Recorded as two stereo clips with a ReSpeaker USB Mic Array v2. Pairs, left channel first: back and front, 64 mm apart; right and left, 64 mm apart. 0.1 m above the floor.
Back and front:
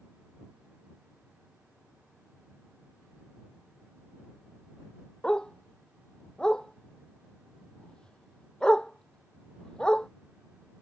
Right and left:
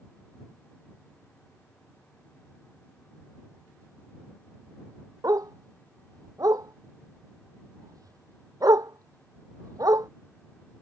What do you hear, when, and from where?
5.2 s a dog barking: 105° left